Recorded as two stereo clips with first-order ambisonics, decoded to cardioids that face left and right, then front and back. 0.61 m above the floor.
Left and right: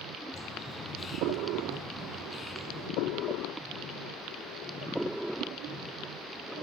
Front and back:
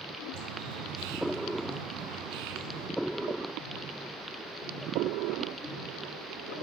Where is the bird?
165° left, 4 m.